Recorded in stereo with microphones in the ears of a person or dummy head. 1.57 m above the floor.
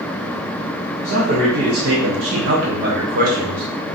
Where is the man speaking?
50° right (ahead or behind), 0.9 m; by 3.6 s 45° right (ahead or behind), 1.3 m.